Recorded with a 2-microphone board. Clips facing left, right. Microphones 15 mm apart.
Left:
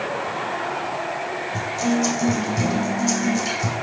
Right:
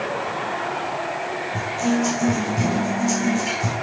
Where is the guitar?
30° left (ahead or behind), 5.5 m.